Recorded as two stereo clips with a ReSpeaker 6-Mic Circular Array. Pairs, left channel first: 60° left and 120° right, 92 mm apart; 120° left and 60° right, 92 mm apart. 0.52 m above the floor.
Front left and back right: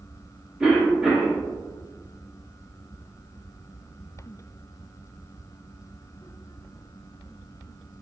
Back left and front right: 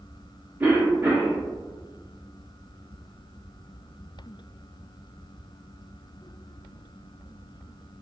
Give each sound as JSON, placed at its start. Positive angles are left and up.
{"t": 0.6, "sound": "a cough", "azimuth_deg": -45, "distance_m": 0.7}